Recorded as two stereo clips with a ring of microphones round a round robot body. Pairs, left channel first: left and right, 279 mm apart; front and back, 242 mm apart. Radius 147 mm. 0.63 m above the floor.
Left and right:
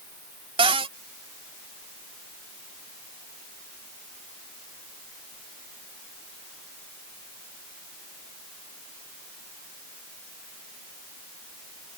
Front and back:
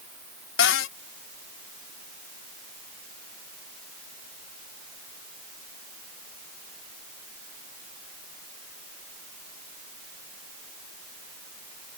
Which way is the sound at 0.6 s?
20° right.